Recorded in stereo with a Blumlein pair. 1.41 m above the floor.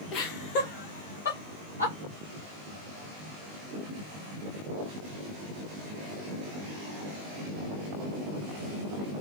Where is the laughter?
35° left, 1.1 m; by 1.9 s 75° left, 1.6 m.